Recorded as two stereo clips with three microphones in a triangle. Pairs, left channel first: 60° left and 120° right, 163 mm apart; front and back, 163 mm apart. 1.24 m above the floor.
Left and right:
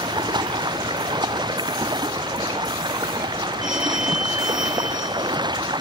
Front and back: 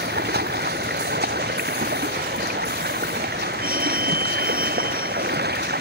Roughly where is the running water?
Behind.